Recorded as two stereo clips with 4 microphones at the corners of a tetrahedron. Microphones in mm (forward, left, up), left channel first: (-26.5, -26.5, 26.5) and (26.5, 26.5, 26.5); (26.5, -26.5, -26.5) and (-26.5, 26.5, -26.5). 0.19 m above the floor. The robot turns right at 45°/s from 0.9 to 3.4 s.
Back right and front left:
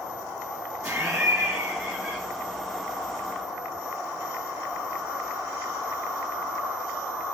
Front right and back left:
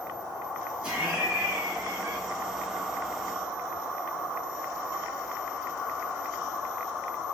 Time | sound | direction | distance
0.8 | laughter | 95° left | 1.1 m